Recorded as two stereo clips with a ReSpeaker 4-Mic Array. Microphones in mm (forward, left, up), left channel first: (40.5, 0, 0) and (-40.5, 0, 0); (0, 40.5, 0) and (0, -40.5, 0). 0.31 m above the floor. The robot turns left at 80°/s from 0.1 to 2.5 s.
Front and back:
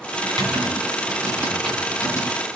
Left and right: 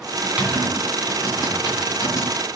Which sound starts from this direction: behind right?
Typing on a keyboard, at 0.2 s.